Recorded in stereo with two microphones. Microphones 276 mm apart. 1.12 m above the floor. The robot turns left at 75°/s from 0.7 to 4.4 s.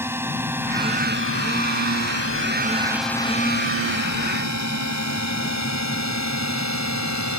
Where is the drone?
10° right (ahead or behind); by 7.4 s 80° left.